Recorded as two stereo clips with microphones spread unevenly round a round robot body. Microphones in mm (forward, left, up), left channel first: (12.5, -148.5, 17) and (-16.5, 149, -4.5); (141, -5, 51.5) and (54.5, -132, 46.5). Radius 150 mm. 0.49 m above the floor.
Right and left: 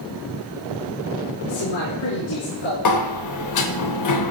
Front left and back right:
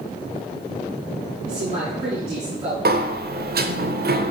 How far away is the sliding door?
About 0.9 m.